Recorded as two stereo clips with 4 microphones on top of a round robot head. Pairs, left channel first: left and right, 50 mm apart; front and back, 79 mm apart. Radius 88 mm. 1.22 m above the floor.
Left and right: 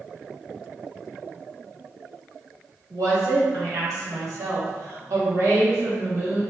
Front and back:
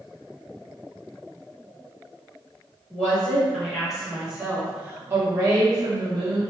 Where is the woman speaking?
75° right, 1.7 m; by 6.4 s 145° right, 1.4 m.